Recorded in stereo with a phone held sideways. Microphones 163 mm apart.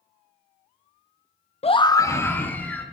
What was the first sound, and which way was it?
A scream, 40° left (ahead or behind).